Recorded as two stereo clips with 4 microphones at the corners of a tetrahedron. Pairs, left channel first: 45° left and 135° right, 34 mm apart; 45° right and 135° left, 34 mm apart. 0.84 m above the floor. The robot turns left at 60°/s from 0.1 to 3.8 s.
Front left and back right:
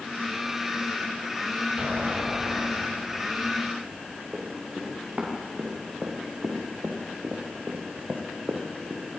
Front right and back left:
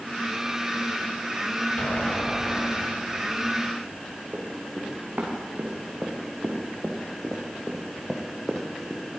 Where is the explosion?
75° right, 2.5 m; by 3.4 s 175° right, 2.5 m.